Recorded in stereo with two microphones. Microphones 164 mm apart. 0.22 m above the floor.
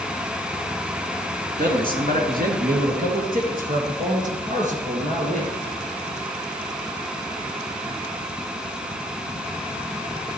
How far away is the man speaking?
About 2.5 m.